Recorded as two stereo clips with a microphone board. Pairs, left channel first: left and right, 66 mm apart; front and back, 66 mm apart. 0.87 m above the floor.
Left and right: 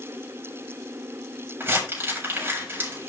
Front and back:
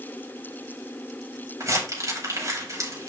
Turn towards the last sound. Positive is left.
turn(degrees=-145)